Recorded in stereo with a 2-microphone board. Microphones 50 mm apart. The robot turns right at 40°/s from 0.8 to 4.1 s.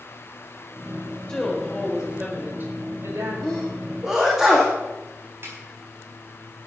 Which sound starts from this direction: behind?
A woman speaking, at 1.3 s.